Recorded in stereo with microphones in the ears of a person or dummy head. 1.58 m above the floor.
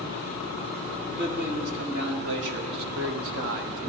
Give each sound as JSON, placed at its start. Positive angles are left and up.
{"t": 1.1, "sound": "a man speaking", "side_deg": -60, "distance_m": 2.5}